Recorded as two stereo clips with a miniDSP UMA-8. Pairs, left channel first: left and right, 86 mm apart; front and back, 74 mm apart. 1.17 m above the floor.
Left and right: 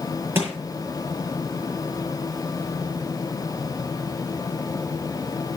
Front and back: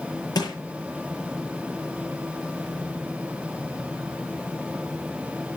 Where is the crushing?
30° right, 8.5 m.